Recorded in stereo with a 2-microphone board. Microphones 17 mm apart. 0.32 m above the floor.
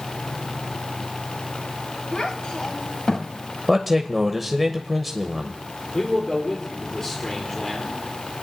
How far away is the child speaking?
About 1.8 m.